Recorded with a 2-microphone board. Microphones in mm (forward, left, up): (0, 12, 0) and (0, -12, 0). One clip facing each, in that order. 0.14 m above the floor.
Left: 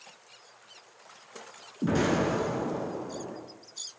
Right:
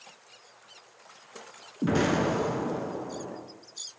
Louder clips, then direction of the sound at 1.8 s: Right 1 dB; 15° right (ahead or behind).